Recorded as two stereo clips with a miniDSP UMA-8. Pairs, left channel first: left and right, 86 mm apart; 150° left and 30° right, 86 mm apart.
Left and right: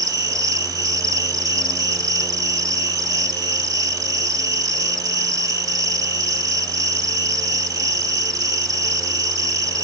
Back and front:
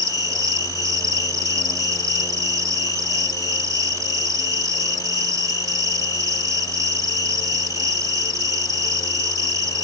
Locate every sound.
0.0 s an insect: 65° right, 0.8 m